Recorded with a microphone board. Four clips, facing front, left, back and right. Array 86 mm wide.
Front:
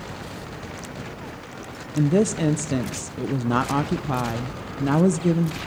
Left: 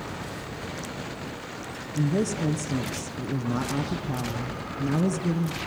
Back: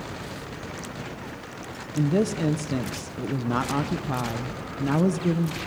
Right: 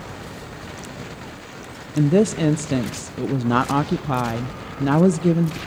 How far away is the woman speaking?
About 0.6 m.